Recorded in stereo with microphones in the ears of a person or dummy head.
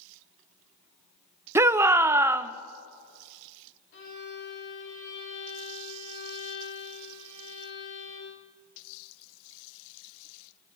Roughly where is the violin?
Left.